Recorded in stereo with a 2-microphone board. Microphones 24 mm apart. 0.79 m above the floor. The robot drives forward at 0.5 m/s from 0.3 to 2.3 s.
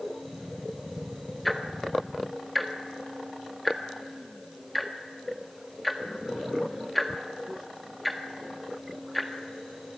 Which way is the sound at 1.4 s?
Centre (ahead or behind).